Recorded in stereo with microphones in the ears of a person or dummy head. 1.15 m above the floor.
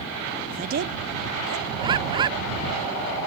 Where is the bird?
20° right (ahead or behind).